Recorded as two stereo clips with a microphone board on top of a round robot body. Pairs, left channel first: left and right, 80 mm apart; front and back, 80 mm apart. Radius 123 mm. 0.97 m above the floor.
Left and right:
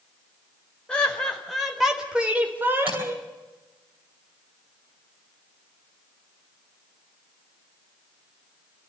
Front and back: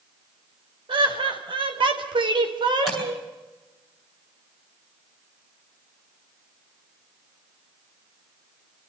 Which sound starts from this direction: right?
Tapping, at 2.9 s.